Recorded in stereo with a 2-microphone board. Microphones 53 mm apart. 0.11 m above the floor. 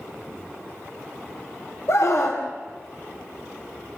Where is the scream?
60° left (ahead or behind), 3 m.